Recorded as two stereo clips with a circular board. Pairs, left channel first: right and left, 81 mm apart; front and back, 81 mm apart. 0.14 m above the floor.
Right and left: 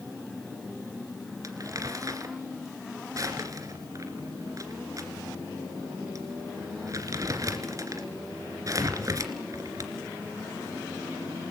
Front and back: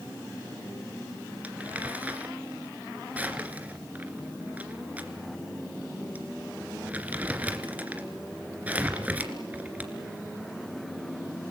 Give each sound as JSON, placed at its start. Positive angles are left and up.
{"t": 1.4, "sound": "crumpling", "azimuth_deg": 115, "distance_m": 2.5}